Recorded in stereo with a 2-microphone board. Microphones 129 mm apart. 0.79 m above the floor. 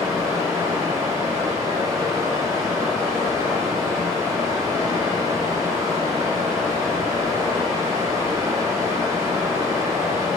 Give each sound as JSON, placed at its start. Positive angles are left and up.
{"t": 0.0, "sound": "running water", "side_deg": -25, "distance_m": 1.0}